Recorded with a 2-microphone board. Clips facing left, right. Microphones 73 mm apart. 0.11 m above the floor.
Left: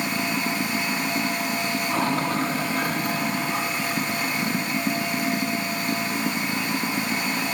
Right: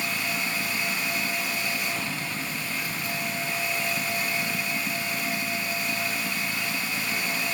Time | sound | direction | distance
0.0 | running water | 55° left (ahead or behind) | ?